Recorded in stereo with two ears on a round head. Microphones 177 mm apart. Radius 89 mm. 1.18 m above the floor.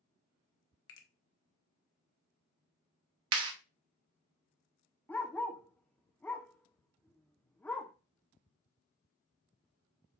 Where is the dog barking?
10° left (ahead or behind), 0.7 m.